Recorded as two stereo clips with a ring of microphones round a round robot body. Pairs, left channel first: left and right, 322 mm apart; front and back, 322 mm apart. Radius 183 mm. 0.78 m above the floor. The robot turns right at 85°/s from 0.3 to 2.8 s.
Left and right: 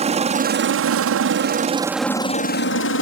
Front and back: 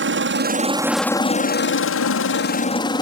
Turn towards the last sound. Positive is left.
turn(degrees=70)